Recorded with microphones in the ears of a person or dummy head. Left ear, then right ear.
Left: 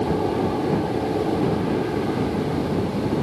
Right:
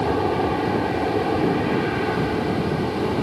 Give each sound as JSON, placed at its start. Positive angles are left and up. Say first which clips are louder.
{"t": 0.0, "sound": "an aircraft", "louder": "right 2 dB", "side_deg": -70}